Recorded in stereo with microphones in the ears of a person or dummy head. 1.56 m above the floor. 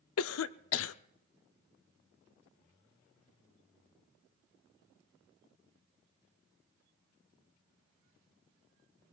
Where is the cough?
85° left, 0.6 m.